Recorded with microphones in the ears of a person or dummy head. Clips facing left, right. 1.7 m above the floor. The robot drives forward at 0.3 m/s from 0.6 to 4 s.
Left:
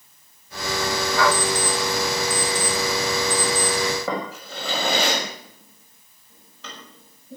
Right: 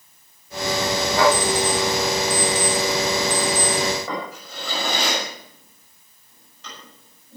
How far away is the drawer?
About 6 m.